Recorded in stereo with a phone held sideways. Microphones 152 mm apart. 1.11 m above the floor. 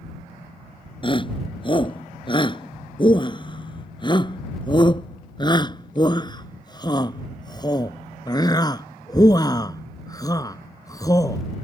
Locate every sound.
1.0 s a shout: 30° left (ahead or behind); by 11.4 s 20° left (ahead or behind)